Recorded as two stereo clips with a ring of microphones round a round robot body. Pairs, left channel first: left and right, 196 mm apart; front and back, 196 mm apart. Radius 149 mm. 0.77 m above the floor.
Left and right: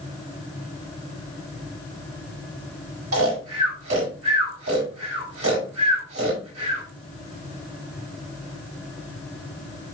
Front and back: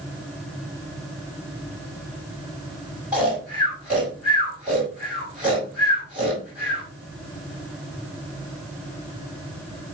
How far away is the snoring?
About 5 m.